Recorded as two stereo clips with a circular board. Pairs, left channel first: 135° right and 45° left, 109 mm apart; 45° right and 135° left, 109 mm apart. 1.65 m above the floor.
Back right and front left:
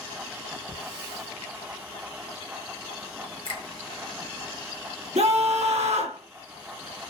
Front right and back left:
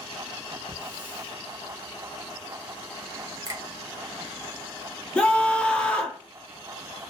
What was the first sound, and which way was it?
A hiss, 10° left.